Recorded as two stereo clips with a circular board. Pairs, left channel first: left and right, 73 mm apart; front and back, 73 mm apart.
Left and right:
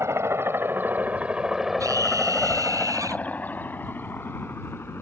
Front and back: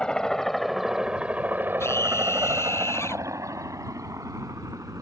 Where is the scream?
50° right.